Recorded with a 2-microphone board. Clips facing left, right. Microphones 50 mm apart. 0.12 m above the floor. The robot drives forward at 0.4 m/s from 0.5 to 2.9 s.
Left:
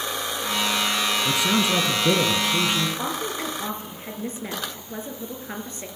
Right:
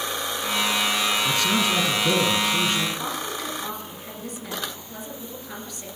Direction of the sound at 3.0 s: 35° left (ahead or behind).